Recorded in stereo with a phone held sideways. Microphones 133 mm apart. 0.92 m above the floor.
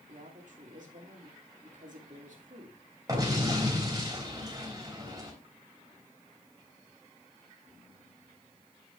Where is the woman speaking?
65° right (ahead or behind), 2.5 m.